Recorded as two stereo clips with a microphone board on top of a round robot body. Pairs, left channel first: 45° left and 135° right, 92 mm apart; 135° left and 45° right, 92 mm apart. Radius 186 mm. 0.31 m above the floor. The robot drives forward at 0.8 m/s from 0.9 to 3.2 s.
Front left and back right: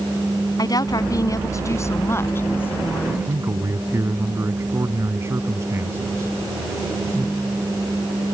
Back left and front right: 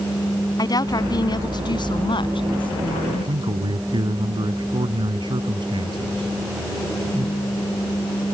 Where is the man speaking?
75° right.